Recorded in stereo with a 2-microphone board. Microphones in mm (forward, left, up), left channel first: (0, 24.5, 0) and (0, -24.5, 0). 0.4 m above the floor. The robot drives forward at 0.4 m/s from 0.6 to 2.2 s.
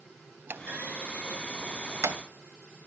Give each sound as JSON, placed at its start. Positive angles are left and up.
{"t": 0.5, "sound": "a clunk", "side_deg": -50, "distance_m": 0.9}